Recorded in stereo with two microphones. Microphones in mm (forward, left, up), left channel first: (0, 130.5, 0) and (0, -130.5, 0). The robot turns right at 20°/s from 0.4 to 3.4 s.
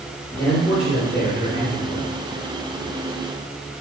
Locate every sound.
0.4 s a man speaking: 120° left, 3 m; by 2.1 s 155° left, 3 m